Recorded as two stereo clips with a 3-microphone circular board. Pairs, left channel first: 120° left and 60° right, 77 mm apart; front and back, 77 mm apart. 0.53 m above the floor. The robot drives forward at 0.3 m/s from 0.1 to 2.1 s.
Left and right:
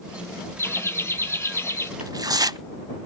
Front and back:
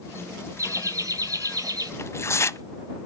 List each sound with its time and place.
0.6 s laughter: 160° left, 1.2 m; by 1.9 s 165° left, 1.5 m
2.0 s tearing paper: 45° right, 0.5 m; by 2.6 s 50° right, 0.5 m